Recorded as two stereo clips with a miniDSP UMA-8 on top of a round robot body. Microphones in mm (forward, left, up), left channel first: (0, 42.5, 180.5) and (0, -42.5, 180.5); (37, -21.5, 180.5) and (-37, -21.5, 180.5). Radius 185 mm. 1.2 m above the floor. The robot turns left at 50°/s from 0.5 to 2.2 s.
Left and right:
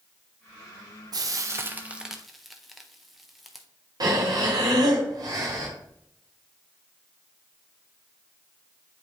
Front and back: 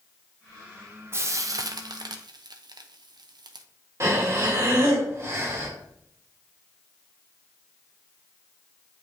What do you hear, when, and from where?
1.1 s frying: 125° right, 0.7 m; by 3.6 s straight behind, 0.7 m
4.0 s breathing: 130° right, 1.0 m